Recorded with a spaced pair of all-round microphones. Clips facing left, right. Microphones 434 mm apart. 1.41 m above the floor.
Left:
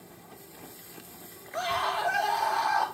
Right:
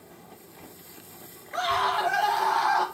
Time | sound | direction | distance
1.5 | a scream | 85° right | 1.2 m